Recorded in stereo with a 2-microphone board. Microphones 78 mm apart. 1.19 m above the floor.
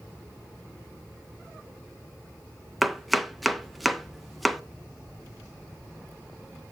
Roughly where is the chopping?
Centre.